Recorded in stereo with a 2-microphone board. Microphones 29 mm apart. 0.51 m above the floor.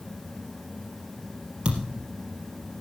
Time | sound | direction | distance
1.6 | a thud | 35° right (ahead or behind) | 3.5 m